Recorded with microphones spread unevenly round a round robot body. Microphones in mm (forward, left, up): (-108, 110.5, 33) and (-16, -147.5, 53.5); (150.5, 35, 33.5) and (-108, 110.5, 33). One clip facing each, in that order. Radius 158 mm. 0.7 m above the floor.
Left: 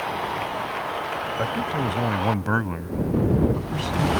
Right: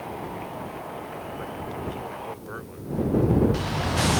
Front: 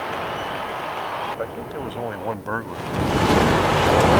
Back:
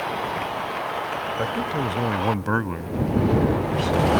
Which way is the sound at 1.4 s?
110° left.